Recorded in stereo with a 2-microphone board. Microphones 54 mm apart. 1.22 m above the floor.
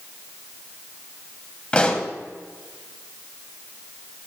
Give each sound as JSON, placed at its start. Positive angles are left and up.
{"t": 1.7, "sound": "a pop", "side_deg": 25, "distance_m": 1.6}